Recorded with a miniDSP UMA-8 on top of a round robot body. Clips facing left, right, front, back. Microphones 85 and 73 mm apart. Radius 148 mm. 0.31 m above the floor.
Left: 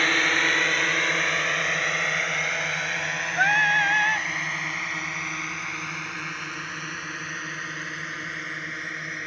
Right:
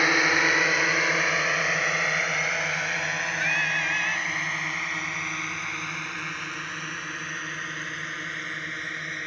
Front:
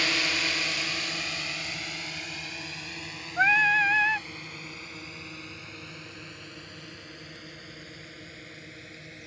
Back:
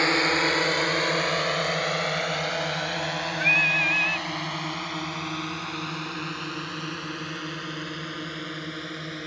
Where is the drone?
165° right; by 9.3 s straight behind.